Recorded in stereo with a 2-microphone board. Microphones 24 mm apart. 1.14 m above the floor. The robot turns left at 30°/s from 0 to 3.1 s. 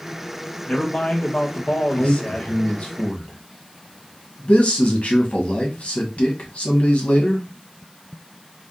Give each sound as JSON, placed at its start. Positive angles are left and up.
{"t": 0.7, "sound": "a man speaking", "azimuth_deg": 125, "distance_m": 1.0}
{"t": 2.0, "sound": "a man speaking", "side_deg": 45, "distance_m": 1.1}